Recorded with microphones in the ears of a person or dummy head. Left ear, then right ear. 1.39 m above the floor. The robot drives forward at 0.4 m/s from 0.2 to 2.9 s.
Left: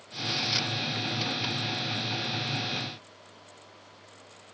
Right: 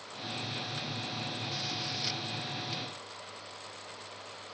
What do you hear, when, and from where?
Only background noise.